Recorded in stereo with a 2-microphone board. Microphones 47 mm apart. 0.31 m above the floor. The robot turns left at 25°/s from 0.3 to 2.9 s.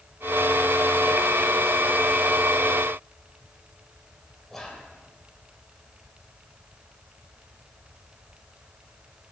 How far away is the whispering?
About 1.4 m.